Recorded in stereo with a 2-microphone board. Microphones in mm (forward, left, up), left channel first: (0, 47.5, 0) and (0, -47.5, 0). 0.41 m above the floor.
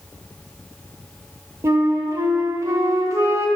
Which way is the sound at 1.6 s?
35° right (ahead or behind).